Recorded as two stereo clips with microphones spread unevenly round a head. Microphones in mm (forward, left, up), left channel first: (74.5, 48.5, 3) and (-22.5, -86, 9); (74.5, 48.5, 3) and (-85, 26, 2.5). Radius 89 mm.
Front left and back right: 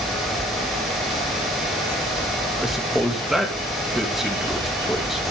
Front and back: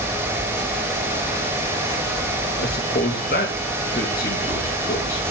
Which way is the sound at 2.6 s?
40° right.